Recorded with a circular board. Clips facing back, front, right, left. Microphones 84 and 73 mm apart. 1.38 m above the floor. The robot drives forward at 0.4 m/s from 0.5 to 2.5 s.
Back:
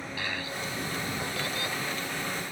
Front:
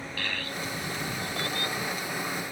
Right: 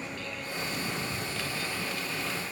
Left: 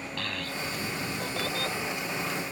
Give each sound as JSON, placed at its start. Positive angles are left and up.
{"t": 0.2, "sound": "a child speaking", "azimuth_deg": 105}